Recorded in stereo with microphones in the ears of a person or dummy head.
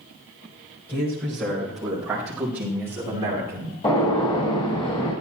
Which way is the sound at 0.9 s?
10° left (ahead or behind).